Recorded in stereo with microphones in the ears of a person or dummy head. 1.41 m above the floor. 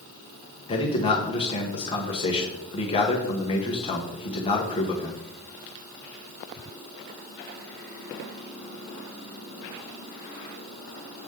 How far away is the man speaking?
About 1.2 m.